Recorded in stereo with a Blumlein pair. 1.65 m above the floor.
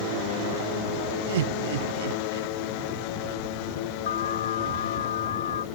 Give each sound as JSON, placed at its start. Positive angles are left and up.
{"t": 1.3, "sound": "laughter", "azimuth_deg": -60}
{"t": 4.1, "sound": "an alarm", "azimuth_deg": 65}